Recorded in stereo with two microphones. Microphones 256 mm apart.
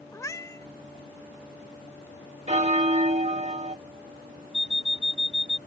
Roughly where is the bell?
Right.